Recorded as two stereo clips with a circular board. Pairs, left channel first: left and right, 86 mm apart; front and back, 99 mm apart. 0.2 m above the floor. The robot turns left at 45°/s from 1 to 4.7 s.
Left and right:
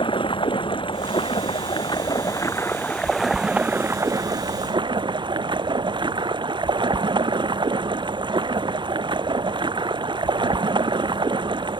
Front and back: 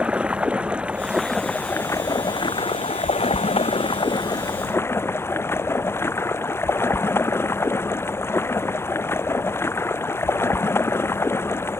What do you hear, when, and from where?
0.0 s running water: 100° left; by 11.8 s 65° right